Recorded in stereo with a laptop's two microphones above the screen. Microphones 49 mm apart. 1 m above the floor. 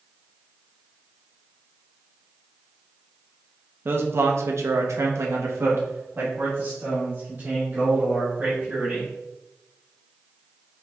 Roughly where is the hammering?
I don't hear hammering.